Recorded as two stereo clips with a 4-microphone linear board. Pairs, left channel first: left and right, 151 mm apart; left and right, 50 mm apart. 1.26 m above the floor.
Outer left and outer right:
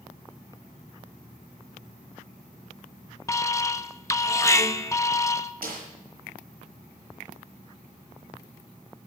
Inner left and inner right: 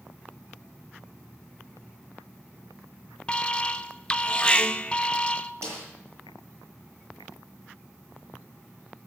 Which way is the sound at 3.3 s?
20° left (ahead or behind).